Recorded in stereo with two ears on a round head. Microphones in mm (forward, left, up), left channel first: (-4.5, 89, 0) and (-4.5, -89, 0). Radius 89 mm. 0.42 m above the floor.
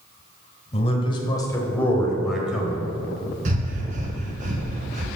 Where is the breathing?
40° right (ahead or behind), 1.6 m.